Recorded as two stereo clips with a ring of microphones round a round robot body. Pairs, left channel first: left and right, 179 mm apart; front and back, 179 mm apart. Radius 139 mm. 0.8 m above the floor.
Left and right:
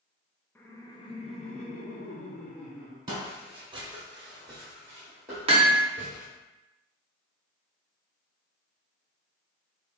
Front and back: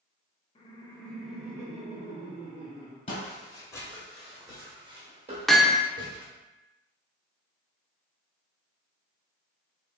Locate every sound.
0.6 s laughter: 20° left, 0.6 m; by 3.0 s 135° left, 1.2 m
3.1 s footsteps: 35° right, 1.0 m; by 6.2 s 175° right, 1.3 m
5.5 s hammering: 90° right, 0.6 m